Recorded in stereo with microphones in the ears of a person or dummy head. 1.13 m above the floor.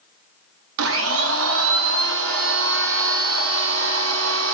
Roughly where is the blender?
Right.